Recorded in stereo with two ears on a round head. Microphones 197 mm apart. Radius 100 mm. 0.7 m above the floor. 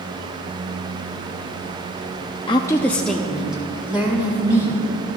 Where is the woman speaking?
25° left (ahead or behind), 0.6 m; by 4.8 s 10° right (ahead or behind), 3 m.